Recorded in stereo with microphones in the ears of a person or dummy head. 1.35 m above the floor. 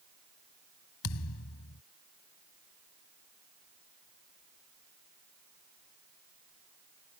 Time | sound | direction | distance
1.0 | a thud | 80° left | ?